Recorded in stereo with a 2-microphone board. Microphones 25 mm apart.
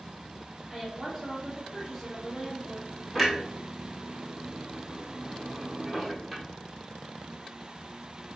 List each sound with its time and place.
0.7 s a woman speaking: 5° right (ahead or behind), 1.6 m
3.1 s a clunk: 5° right (ahead or behind), 1.2 m